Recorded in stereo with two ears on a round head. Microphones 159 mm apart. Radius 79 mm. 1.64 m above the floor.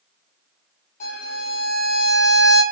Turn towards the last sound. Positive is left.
turn(degrees=50)  # may be behind; listen again after turning